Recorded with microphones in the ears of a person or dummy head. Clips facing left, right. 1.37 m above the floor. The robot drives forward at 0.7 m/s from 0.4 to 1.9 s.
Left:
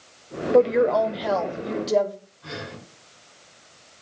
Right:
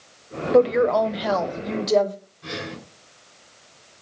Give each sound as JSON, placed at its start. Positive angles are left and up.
{"t": 0.5, "sound": "a woman speaking", "side_deg": 0, "distance_m": 0.8}
{"t": 2.4, "sound": "breathing", "side_deg": -35, "distance_m": 5.5}